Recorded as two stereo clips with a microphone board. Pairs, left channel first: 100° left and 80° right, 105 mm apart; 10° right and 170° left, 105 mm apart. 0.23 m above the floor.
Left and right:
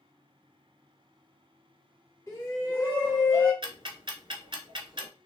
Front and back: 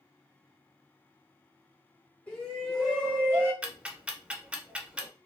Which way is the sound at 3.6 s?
110° right.